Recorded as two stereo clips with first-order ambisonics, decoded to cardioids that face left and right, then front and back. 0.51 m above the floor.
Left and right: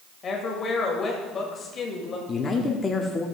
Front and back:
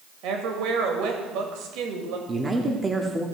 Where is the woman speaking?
155° left, 1.8 m.